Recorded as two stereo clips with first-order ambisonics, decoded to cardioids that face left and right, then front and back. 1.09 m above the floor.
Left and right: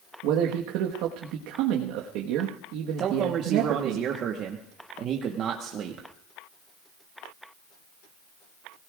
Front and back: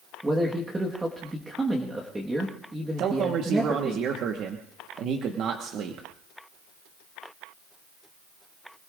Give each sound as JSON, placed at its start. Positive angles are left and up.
{"t": 0.2, "sound": "a man speaking", "azimuth_deg": -100, "distance_m": 1.4}
{"t": 3.0, "sound": "a man speaking", "azimuth_deg": -140, "distance_m": 1.2}